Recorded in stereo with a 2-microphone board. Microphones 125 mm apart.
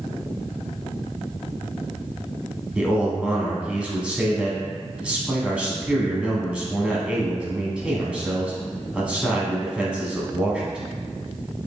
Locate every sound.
2.8 s a man speaking: 10° right (ahead or behind), 1.2 m